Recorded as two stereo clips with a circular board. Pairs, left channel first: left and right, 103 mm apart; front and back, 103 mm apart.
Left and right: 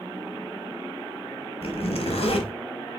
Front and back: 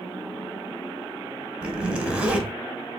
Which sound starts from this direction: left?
A zipper, at 1.6 s.